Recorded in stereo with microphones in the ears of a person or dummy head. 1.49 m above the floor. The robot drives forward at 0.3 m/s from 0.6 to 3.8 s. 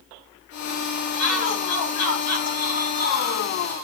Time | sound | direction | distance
1.2 | a shout | 80° left | 3 m